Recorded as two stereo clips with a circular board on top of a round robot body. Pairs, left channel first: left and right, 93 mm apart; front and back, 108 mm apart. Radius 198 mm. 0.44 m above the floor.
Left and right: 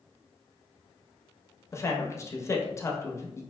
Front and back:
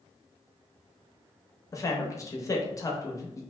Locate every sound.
1.7 s a man speaking: 45° left, 0.9 m